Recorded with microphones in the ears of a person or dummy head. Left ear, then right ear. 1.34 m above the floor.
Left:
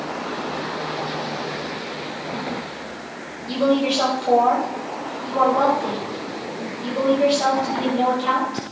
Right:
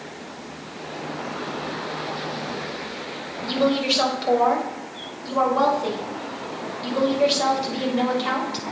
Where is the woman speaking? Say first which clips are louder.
Left 1 dB; 30° right (ahead or behind), 6 m.